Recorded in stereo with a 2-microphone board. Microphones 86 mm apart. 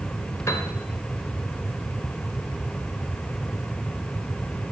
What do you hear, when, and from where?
0.5 s a piano: 35° left (ahead or behind), 1.3 m